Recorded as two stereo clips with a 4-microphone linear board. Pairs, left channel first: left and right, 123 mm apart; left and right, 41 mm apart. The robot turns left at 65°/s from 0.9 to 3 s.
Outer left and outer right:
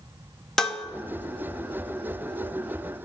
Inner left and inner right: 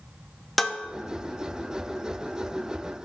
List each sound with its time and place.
0.6 s dishes clattering: 5° left (ahead or behind), 0.6 m